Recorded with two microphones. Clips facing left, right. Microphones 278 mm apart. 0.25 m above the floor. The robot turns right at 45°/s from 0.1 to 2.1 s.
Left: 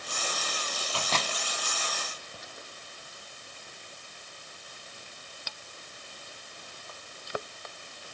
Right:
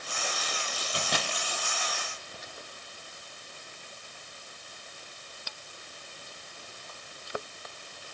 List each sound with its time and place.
0.9 s a microwave: 20° right (ahead or behind), 1.5 m; by 1.3 s 5° right (ahead or behind), 1.5 m